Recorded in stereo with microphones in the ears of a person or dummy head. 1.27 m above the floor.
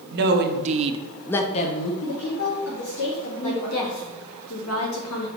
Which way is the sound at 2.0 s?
75° left (ahead or behind).